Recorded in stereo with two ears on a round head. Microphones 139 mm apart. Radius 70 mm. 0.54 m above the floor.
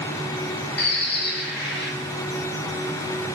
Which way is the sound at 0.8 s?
75° left (ahead or behind).